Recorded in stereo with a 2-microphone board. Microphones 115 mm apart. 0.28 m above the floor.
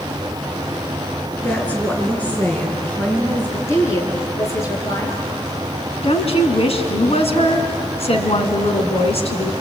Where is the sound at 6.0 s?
60° left (ahead or behind), 3 m.